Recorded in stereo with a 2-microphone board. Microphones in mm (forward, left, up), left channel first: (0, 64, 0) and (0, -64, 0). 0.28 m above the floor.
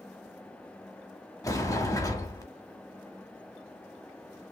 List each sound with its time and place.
1.4 s a sliding door: 25° left (ahead or behind), 0.7 m